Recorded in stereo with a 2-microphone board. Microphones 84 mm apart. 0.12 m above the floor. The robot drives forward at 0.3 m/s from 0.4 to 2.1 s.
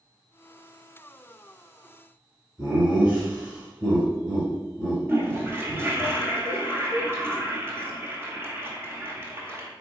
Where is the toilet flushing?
30° right (ahead or behind), 1.0 m.